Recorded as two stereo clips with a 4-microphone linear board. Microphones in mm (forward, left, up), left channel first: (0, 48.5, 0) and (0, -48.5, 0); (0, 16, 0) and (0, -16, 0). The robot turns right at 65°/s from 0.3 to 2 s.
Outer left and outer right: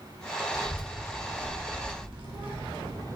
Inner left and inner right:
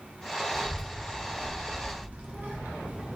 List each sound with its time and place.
0.5 s a child speaking: 5° right (ahead or behind), 0.6 m; by 3.0 s 65° right (ahead or behind), 0.6 m